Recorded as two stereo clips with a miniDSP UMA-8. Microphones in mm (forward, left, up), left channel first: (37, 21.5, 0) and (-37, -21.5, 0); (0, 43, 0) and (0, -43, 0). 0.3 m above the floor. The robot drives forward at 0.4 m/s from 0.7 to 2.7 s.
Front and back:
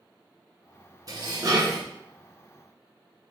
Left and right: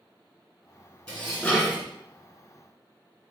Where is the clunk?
I don't hear a clunk.